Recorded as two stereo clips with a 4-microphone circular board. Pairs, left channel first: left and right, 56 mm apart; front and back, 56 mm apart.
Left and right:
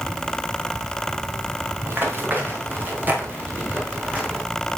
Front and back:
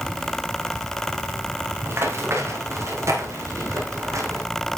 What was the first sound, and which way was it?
Running footsteps, 140° right.